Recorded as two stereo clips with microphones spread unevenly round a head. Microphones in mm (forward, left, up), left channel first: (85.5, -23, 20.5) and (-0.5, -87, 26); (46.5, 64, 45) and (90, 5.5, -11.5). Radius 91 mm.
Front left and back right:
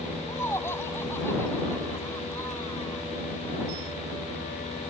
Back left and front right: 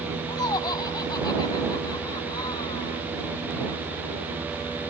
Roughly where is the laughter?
Behind left.